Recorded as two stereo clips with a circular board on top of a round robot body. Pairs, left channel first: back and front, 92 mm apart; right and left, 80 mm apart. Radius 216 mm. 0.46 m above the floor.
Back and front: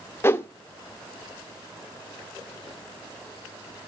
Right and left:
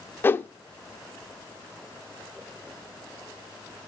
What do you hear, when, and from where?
0.2 s a whoosh: 135° right, 0.7 m